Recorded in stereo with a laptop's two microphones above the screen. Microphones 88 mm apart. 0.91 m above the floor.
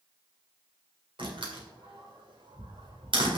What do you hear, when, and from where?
1.2 s a door slam: 70° right (ahead or behind), 2 m